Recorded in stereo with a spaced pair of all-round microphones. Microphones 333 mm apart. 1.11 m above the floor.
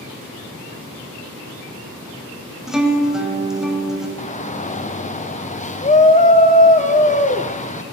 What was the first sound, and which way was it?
A guitar, centre (ahead or behind).